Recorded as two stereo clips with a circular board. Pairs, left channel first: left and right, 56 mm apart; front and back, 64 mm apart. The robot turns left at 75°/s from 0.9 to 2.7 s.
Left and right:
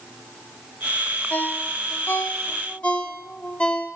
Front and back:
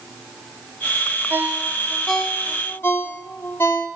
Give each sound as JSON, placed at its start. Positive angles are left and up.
{"t": 1.3, "sound": "a ringtone", "azimuth_deg": 145, "distance_m": 0.8}